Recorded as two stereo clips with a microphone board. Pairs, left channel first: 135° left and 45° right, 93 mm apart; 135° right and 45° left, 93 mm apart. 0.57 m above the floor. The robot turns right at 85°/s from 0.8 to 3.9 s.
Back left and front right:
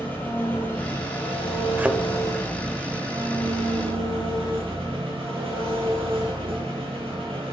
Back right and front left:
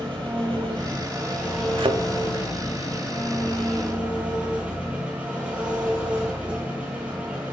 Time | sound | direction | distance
0.0 | an engine running | 65° left | 4.5 m
1.8 | a thud | 25° left | 0.7 m